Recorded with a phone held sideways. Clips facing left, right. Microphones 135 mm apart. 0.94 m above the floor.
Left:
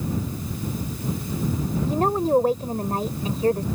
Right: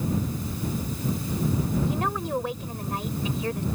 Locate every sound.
1.9 s a woman speaking: 40° left (ahead or behind)